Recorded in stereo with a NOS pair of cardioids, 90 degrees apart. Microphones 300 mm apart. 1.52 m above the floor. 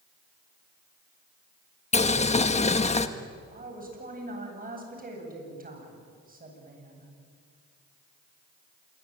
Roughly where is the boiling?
Ahead.